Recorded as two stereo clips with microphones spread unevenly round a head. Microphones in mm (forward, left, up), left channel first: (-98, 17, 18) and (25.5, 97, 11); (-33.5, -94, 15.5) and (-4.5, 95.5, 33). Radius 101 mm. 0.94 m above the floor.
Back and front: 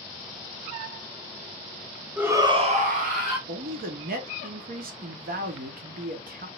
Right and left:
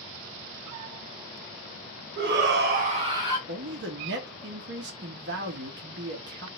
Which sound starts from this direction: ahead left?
A man speaking, at 3.5 s.